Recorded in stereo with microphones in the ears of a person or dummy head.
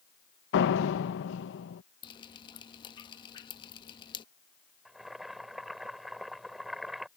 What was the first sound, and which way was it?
A door slam, 70° left (ahead or behind).